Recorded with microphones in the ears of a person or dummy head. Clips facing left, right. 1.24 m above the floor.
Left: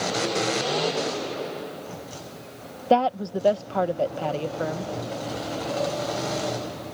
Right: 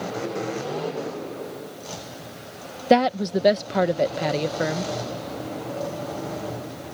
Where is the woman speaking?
25° right (ahead or behind).